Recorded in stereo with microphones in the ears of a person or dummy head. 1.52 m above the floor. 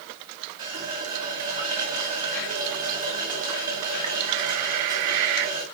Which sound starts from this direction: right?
A running tap, at 0.6 s.